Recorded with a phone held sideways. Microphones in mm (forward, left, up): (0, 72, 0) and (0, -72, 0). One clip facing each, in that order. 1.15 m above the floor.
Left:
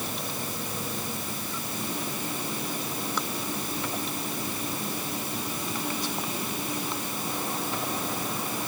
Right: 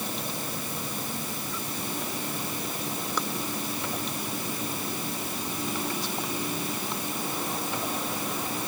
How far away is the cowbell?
No cowbell in this recording.